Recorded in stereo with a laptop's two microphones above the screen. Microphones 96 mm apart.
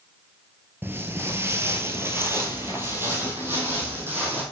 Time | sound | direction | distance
0.8 | footsteps | 20° right (ahead or behind) | 0.9 m